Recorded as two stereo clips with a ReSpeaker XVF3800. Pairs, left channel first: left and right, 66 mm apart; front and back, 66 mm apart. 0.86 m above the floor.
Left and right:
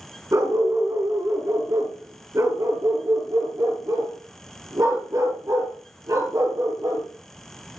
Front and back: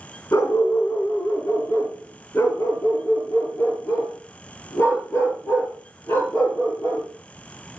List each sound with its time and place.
0.3 s a dog barking: 50° right, 2.5 m; by 7.0 s 55° right, 6 m